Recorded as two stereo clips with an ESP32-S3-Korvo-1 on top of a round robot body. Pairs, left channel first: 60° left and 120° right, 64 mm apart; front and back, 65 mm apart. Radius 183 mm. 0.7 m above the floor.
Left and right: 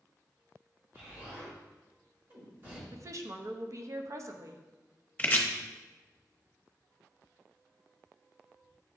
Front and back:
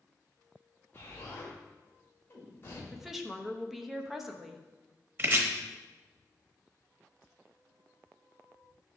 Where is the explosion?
60° right, 1.8 m.